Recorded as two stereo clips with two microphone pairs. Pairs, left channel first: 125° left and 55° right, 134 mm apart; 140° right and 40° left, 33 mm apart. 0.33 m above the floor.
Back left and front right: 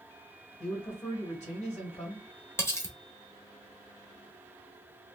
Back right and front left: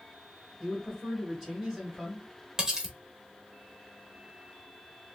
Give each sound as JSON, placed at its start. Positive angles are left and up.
{"t": 0.6, "sound": "a man speaking", "azimuth_deg": 110, "distance_m": 1.9}
{"t": 2.6, "sound": "cutlery clinking", "azimuth_deg": 80, "distance_m": 0.7}